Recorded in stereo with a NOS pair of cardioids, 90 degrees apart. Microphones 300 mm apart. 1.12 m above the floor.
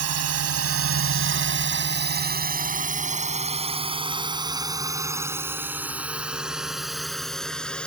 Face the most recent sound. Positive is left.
turn(degrees=5)